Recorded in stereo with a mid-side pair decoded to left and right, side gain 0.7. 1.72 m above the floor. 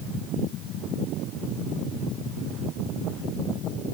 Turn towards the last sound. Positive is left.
No sound to turn to.